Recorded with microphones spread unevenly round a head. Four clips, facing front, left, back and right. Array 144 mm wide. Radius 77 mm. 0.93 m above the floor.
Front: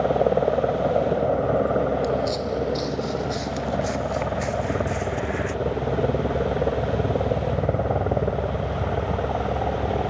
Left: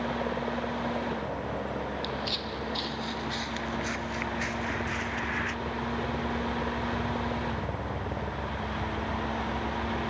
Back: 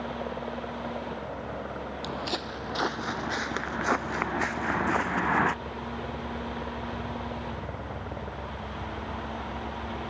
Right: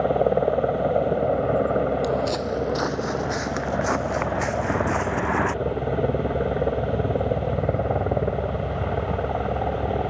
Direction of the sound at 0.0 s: 40° right.